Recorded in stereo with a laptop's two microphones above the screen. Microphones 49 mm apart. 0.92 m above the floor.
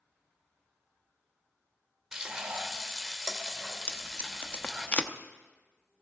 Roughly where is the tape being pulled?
Left.